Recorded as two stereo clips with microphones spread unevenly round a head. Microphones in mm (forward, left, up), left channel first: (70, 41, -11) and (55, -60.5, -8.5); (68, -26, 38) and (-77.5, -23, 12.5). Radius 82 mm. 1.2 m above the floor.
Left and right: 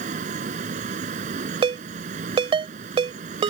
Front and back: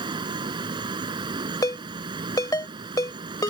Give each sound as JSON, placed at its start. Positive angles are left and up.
{"t": 0.0, "sound": "a fan", "azimuth_deg": -120}
{"t": 1.6, "sound": "a ringtone", "azimuth_deg": -65}